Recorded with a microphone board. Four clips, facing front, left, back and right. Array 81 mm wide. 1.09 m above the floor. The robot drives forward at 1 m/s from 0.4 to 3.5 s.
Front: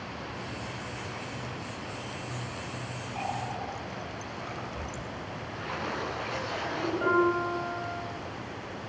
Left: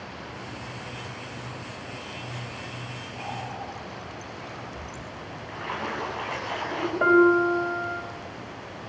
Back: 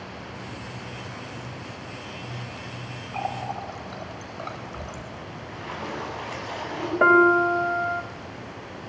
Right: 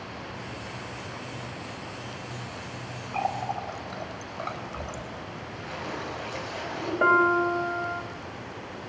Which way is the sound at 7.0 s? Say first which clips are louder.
Left 3 dB, back 10 dB; straight behind.